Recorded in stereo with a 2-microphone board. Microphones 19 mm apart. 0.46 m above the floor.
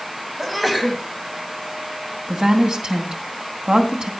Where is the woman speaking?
45° right (ahead or behind), 3 m.